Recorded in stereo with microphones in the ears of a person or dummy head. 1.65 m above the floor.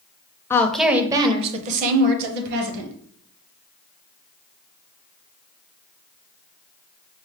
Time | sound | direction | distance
0.5 | a woman speaking | 15° left (ahead or behind) | 0.6 m